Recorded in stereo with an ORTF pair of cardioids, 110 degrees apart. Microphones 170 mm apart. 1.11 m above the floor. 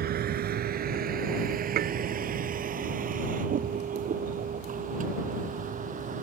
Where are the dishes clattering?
60° right.